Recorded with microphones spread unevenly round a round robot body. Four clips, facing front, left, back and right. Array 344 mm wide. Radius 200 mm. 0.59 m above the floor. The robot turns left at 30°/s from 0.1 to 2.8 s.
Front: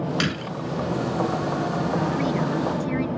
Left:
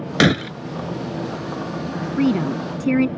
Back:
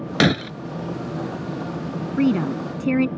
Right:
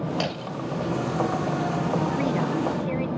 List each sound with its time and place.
0.2 s breaking glass: 120° left; by 0.5 s 110° left
2.2 s a woman speaking: 140° left; by 3.1 s 120° left